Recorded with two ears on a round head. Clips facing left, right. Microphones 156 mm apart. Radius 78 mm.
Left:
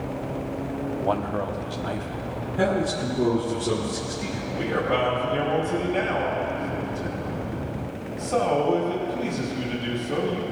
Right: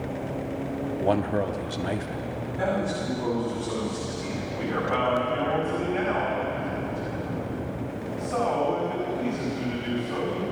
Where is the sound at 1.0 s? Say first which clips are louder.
Right 3 dB; 20° right (ahead or behind), 0.8 m.